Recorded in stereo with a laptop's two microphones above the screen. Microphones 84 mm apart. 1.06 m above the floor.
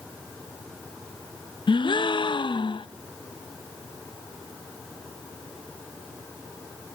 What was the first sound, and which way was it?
A gasp, 70° left (ahead or behind).